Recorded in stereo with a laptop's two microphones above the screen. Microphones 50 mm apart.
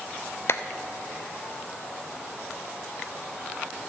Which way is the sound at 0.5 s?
50° left (ahead or behind).